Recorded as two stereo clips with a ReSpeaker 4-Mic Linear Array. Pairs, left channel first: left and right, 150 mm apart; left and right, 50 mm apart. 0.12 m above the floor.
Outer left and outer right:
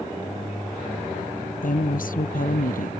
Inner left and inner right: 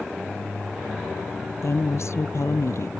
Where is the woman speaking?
65° left (ahead or behind).